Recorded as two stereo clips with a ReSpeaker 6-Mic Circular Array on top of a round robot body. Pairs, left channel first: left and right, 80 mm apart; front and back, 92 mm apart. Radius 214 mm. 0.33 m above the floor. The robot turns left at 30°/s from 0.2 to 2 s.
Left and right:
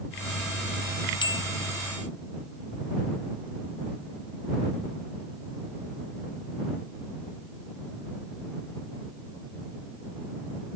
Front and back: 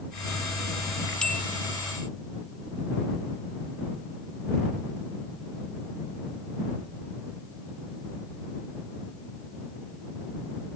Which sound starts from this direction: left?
A bell, at 1.2 s.